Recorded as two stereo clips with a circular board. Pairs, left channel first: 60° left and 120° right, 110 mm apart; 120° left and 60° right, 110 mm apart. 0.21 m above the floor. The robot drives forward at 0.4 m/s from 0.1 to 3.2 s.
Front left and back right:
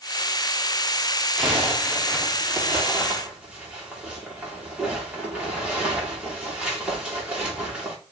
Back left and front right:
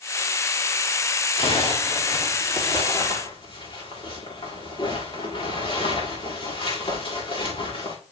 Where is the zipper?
160° left, 7 m.